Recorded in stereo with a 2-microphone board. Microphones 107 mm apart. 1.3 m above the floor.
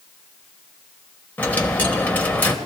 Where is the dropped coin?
15° left (ahead or behind), 1.2 m.